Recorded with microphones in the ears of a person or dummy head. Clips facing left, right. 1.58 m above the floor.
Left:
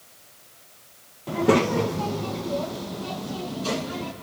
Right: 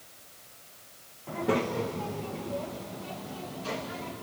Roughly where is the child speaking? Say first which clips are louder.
Left 8 dB; left.